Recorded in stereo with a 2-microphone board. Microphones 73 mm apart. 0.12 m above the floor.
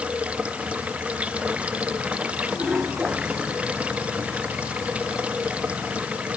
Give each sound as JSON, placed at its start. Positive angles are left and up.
{"t": 0.0, "sound": "running water", "side_deg": -15}